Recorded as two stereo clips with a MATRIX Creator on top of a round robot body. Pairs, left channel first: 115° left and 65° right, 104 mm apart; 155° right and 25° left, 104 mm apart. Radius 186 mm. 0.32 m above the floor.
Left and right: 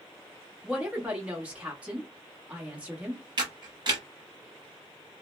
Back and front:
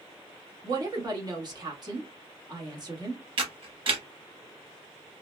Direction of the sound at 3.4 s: 20° right.